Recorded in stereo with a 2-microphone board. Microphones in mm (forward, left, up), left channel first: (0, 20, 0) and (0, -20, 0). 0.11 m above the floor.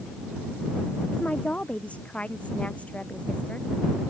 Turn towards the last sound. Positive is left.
turn(degrees=35)  # may be behind; listen again after turning